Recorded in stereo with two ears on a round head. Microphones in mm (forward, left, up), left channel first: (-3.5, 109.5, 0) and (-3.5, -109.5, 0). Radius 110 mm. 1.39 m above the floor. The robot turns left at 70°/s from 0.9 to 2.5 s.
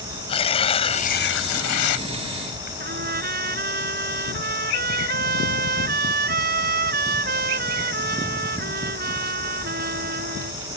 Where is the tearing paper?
155° left; by 2.7 s 45° left.